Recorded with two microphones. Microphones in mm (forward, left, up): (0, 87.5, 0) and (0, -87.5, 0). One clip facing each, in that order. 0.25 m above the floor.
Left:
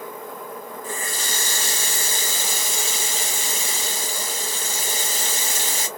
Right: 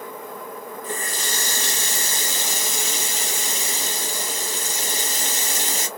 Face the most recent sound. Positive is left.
turn(degrees=-35)  # may be behind; listen again after turning